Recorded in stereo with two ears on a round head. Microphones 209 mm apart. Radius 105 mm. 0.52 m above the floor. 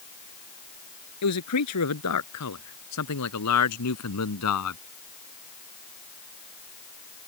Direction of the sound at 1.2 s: 85° left.